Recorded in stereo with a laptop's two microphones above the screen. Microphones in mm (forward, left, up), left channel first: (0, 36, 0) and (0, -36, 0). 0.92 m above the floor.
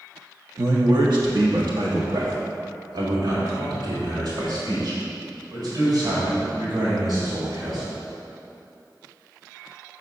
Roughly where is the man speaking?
Right.